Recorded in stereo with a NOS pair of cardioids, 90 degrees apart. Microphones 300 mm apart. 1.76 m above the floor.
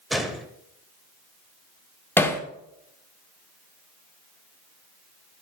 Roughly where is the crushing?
No crushing in this recording.